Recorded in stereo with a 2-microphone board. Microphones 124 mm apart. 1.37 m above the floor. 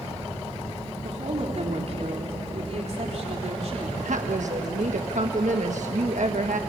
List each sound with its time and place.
1.0 s a woman speaking: 60° right (ahead or behind), 4 m
4.0 s a woman speaking: 75° right (ahead or behind), 1.4 m